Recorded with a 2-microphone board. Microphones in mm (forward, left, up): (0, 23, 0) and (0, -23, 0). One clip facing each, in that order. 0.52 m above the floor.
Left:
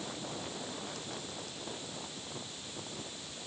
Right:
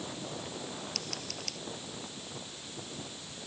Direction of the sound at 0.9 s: 85° right.